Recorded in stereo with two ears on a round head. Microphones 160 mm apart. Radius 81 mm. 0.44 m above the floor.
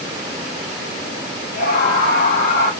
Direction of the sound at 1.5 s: 55° left (ahead or behind).